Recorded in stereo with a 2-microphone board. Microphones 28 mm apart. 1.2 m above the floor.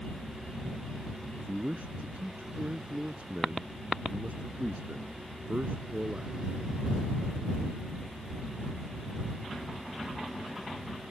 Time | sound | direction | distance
1.4 | a man speaking | 60° right (ahead or behind) | ?